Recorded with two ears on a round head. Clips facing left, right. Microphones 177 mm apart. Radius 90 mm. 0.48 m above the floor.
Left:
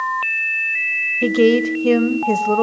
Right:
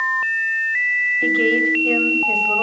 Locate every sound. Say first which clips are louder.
1.2 s a woman speaking: left 6 dB; 60° left (ahead or behind), 1.8 m